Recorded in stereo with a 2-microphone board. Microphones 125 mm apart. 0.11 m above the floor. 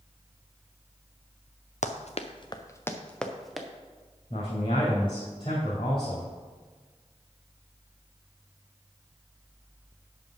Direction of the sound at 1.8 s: 75° left (ahead or behind).